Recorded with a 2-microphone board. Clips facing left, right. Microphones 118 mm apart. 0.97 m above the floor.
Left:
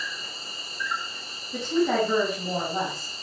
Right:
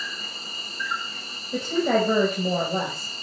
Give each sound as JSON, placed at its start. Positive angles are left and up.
{"t": 0.0, "sound": "an insect", "side_deg": -75, "distance_m": 4.5}
{"t": 1.5, "sound": "a woman speaking", "side_deg": -85, "distance_m": 4.0}